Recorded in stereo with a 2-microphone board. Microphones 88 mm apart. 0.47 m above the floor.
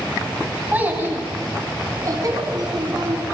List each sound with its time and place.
0.7 s a child speaking: 20° right (ahead or behind), 1.6 m; by 3.2 s 55° right (ahead or behind), 2.5 m